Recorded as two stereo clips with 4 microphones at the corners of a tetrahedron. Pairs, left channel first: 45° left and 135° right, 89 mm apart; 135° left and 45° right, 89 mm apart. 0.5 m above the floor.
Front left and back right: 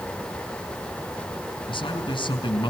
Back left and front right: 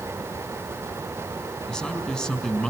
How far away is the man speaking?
About 4 m.